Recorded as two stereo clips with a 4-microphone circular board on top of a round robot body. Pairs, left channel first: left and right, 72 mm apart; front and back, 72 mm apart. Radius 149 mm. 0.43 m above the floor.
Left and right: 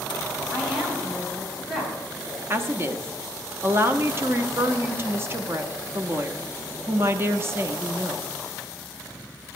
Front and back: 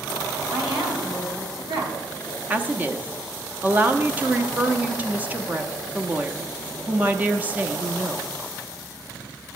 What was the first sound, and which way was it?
A woman speaking, 175° right.